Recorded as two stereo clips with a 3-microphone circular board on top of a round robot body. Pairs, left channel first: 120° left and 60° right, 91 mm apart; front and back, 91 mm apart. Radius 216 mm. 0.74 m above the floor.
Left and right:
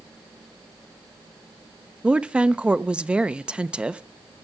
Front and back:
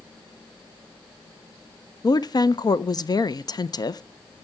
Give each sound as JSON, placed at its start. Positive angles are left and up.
{"t": 2.0, "sound": "a woman speaking", "azimuth_deg": 15, "distance_m": 0.7}